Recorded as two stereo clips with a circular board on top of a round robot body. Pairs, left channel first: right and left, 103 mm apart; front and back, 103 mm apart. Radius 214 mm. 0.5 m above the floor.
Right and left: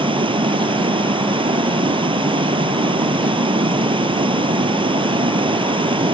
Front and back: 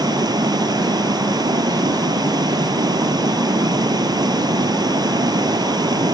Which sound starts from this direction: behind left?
Running water, at 0.0 s.